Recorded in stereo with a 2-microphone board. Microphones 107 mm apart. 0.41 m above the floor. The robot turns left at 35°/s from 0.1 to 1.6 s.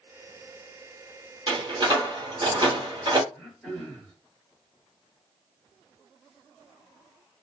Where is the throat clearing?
10° left (ahead or behind), 1.8 m.